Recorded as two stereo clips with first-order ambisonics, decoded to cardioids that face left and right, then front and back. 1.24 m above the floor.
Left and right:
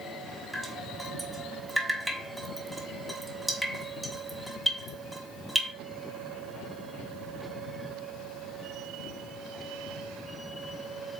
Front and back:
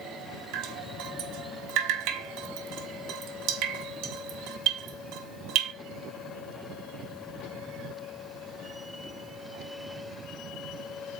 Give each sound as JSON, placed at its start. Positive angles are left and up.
{"t": 0.5, "sound": "dripping", "azimuth_deg": -170, "distance_m": 1.3}